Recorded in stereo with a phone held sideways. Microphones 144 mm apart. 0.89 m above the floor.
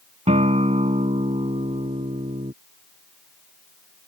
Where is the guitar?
50° right (ahead or behind).